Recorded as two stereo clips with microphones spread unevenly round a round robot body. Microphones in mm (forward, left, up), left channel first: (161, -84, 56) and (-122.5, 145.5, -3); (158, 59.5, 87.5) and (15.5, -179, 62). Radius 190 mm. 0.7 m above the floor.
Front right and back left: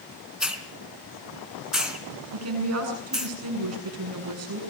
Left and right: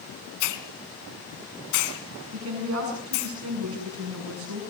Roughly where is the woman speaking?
Behind.